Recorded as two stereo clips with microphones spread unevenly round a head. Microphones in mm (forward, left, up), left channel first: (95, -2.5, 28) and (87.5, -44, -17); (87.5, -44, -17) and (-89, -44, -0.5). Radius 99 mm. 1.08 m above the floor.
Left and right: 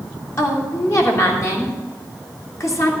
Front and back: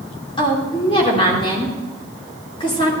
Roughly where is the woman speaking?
Left.